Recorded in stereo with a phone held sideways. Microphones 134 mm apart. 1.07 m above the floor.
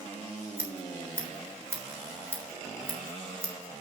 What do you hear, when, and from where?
0.6 s scissors: 20° right (ahead or behind), 3.5 m